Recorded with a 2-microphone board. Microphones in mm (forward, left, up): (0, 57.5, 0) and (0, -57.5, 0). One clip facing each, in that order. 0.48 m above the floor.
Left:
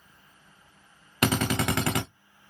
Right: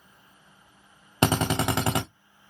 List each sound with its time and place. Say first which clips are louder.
1.2 s a drill: right 2 dB; 30° right (ahead or behind), 0.6 m